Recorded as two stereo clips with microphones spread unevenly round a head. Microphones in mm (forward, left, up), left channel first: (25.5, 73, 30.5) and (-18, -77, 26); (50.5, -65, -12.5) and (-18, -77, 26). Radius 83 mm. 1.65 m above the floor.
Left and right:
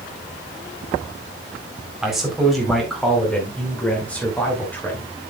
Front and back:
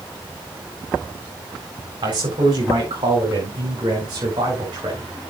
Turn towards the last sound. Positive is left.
turn(degrees=150)